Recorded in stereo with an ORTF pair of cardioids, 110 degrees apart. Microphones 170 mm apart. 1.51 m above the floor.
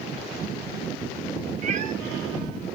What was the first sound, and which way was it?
A cat meowing, 50° right.